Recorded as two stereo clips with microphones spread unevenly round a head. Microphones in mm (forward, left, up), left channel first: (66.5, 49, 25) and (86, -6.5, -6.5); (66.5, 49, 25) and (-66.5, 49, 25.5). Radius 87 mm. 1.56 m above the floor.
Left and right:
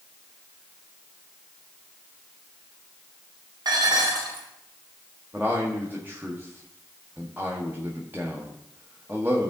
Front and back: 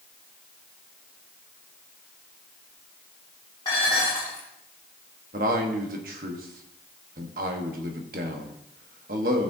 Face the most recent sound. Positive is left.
turn(degrees=-145)